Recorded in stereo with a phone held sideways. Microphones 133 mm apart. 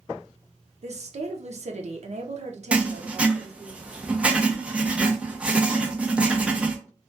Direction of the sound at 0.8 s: 60° right (ahead or behind).